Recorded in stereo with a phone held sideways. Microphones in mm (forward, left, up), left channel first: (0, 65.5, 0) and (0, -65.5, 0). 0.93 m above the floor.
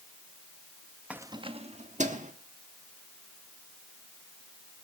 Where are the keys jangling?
10° right (ahead or behind), 0.7 m; by 2.3 s 70° right (ahead or behind), 1.9 m.